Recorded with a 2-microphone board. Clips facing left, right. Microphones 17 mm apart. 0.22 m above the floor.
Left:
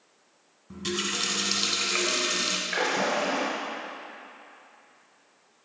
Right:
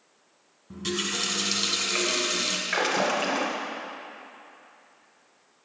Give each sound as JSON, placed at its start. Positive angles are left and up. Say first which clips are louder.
{"t": 0.7, "sound": "a running tap", "louder": "right 1 dB", "side_deg": 0, "distance_m": 1.2}
{"t": 2.7, "sound": "a splash", "louder": "right 3 dB", "side_deg": -40, "distance_m": 1.7}